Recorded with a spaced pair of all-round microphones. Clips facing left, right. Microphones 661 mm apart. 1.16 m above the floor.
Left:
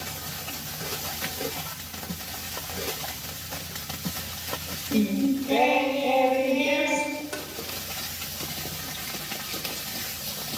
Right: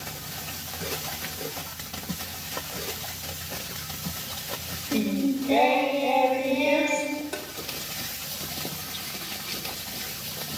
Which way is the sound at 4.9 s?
40° left (ahead or behind).